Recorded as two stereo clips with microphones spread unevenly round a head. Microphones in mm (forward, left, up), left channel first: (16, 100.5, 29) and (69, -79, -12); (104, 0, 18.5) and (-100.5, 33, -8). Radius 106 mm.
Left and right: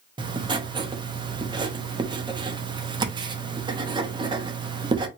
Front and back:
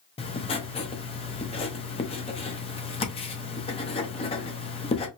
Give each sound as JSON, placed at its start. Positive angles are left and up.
{"t": 0.2, "sound": "writing", "azimuth_deg": -5, "distance_m": 0.6}